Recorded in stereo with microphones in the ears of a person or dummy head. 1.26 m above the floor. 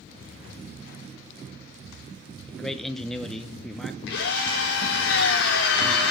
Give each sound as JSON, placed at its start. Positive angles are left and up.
{"t": 2.5, "sound": "a man speaking", "side_deg": 5, "distance_m": 0.9}
{"t": 4.1, "sound": "a drill", "side_deg": 75, "distance_m": 2.5}